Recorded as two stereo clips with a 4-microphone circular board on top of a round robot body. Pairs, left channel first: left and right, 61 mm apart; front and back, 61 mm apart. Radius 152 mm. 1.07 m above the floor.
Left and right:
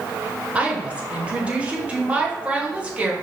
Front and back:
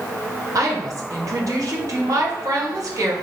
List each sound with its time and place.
0.6 s a woman speaking: 155° right, 1.3 m